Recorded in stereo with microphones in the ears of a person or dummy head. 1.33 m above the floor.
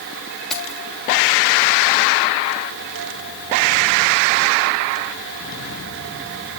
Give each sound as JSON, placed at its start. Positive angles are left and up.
{"t": 0.5, "sound": "keys jangling", "side_deg": 0, "distance_m": 1.6}